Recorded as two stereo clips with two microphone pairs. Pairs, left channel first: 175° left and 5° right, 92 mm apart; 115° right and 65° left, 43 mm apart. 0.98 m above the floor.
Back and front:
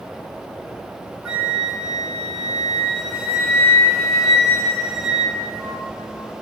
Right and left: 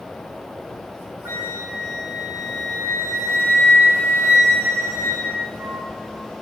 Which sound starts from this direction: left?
A flute, at 1.2 s.